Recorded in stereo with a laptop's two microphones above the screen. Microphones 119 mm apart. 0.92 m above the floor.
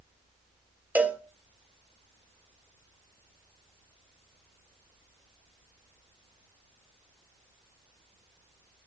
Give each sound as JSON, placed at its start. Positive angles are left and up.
{"t": 0.9, "sound": "a cowbell", "side_deg": -15, "distance_m": 1.5}